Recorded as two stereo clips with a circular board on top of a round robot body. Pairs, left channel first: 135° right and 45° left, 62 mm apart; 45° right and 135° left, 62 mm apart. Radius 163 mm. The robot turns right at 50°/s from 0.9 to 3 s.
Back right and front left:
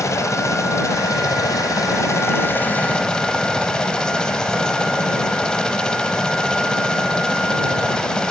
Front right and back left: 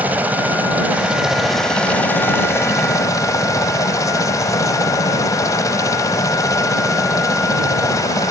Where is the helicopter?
165° right; by 8.3 s 60° right.